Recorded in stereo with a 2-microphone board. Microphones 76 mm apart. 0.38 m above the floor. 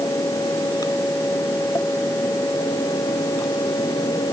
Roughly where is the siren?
I don't hear a siren.